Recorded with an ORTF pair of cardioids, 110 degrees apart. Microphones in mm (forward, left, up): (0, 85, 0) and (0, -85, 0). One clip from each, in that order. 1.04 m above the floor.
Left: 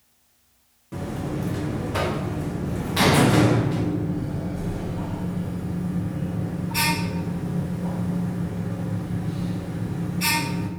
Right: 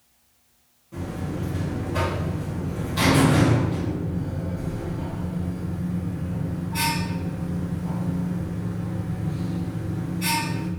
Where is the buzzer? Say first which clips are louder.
Left 2 dB; 55° left, 1.2 m.